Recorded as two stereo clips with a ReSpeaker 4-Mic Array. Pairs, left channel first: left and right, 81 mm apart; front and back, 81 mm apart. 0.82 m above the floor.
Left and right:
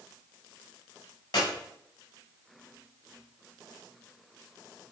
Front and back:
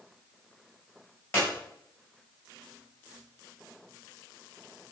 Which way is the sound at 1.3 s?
65° left.